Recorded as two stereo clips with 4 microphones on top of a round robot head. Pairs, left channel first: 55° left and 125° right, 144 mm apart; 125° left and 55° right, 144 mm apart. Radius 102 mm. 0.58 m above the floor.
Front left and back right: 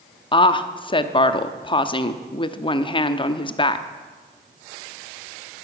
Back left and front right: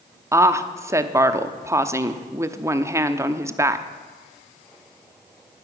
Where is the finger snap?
I don't hear a finger snap.